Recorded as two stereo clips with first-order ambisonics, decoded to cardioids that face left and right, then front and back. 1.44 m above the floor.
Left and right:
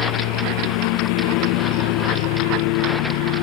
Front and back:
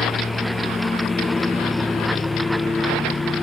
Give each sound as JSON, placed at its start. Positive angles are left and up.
{"t": 0.0, "sound": "a lawn mower", "azimuth_deg": 75}